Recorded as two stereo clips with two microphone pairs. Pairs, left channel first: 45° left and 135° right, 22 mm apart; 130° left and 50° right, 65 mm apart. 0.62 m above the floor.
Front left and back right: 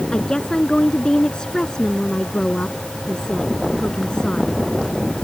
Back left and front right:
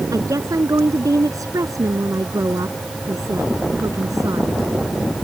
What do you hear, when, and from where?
0.1 s a woman speaking: 15° right